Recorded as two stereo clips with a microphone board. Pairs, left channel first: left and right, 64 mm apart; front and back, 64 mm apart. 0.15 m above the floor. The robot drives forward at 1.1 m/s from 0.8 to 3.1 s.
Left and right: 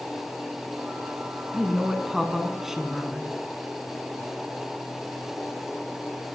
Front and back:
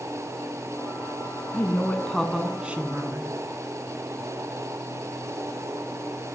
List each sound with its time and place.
1.5 s a woman speaking: 10° right, 1.4 m; by 3.3 s 170° right, 1.4 m